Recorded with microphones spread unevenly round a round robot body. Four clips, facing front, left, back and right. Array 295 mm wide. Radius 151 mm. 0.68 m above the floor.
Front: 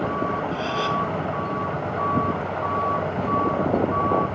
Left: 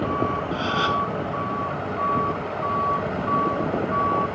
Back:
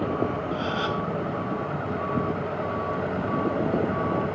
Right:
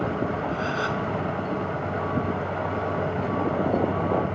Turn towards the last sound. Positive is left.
turn(degrees=65)